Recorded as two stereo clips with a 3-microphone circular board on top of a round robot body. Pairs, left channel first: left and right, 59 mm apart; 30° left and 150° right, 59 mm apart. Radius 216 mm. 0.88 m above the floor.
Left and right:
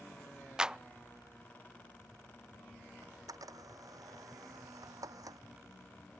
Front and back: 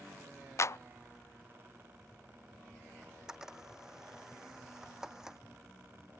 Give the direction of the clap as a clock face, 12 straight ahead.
12 o'clock.